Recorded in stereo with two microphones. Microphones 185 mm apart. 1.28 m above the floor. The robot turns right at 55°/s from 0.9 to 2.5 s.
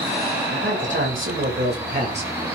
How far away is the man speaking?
About 7 m.